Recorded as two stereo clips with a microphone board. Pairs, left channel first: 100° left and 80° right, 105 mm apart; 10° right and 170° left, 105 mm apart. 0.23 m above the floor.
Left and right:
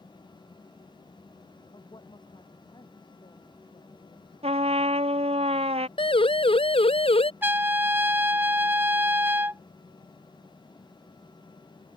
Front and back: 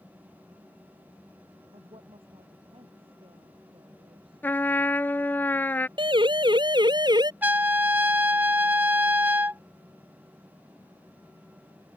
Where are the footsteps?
I don't hear footsteps.